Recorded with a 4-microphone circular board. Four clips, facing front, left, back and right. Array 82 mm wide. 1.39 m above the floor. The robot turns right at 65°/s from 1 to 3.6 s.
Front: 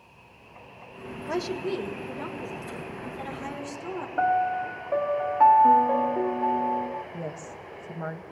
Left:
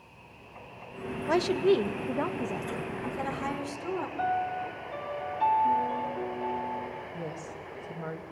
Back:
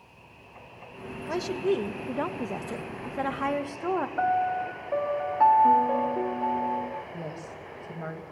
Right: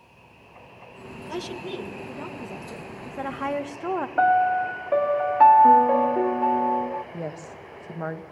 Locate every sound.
1.3 s a woman speaking: 80° left, 1.7 m; by 4.1 s 130° right, 1.7 m
4.2 s a piano: 80° right, 0.6 m
7.1 s a woman speaking: 80° right, 1.8 m